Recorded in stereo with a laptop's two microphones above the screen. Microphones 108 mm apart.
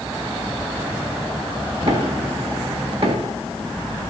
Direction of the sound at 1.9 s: 60° right (ahead or behind).